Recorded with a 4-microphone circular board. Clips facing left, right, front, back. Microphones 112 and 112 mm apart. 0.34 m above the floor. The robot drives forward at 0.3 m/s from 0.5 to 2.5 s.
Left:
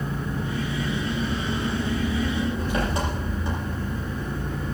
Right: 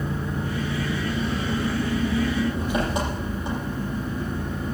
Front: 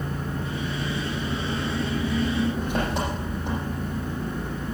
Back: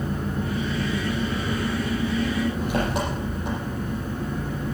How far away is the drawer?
No drawer in this recording.